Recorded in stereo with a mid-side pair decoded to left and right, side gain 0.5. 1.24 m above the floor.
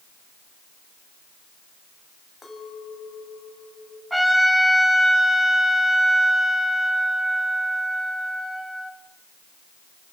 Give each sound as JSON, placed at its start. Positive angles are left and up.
{"t": 2.4, "sound": "a clink", "azimuth_deg": 20, "distance_m": 6.0}
{"t": 4.1, "sound": "a trumpet", "azimuth_deg": -5, "distance_m": 9.5}